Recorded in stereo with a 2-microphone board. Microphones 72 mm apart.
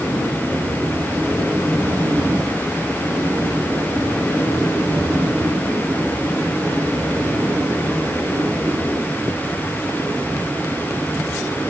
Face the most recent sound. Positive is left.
No sound to turn to.